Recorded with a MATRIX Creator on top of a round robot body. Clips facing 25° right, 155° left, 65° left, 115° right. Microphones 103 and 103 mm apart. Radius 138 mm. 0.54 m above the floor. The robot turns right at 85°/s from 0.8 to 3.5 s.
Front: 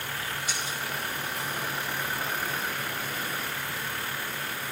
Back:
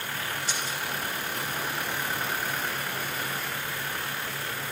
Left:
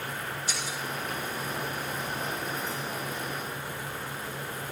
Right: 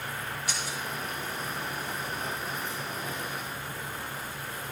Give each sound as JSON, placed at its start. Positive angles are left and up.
{"t": 0.5, "sound": "breaking glass", "azimuth_deg": -145, "distance_m": 5.0}